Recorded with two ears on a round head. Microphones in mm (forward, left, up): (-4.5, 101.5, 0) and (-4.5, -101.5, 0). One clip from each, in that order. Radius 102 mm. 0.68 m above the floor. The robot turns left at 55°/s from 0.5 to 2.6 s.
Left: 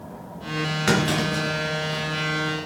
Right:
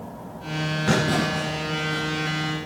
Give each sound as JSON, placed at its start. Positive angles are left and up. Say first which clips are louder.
{"t": 0.9, "sound": "a clunk", "louder": "even", "side_deg": 60, "distance_m": 4.0}